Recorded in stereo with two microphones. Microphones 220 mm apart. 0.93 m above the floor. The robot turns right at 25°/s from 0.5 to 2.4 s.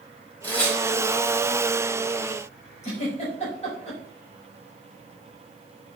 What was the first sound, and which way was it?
Tearing paper, 10° left (ahead or behind).